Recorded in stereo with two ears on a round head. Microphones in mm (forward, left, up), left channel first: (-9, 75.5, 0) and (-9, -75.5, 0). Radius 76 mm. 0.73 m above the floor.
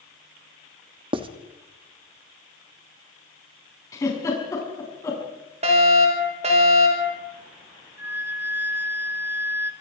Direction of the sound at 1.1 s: 30° right (ahead or behind).